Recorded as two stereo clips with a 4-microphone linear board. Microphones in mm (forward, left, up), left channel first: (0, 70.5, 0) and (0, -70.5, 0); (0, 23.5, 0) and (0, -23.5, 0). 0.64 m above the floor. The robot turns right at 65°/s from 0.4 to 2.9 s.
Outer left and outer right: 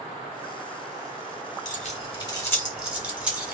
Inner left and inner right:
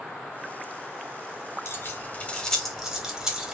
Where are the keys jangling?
65° left (ahead or behind), 1.3 m; by 3.5 s 10° right (ahead or behind), 1.3 m.